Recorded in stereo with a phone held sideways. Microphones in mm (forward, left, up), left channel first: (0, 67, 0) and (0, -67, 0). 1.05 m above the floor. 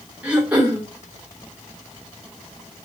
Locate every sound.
0.2 s throat clearing: 10° right (ahead or behind), 3 m